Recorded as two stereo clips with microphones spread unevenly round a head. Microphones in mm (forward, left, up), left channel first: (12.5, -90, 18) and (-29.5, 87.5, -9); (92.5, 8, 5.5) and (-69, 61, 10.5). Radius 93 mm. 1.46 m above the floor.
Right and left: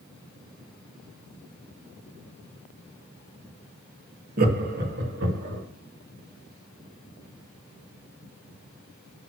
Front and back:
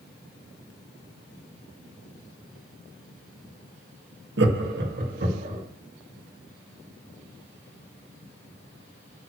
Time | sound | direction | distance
4.4 | laughter | 150° left | 1.8 m